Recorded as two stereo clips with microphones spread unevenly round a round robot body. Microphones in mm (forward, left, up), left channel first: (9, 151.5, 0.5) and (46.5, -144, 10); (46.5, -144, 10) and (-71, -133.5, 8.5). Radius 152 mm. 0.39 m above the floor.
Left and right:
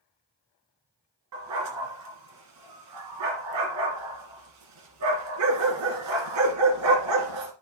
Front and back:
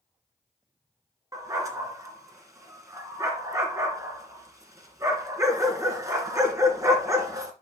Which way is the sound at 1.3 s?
120° right.